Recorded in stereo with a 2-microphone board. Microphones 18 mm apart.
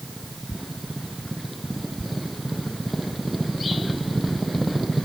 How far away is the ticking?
I don't hear ticking.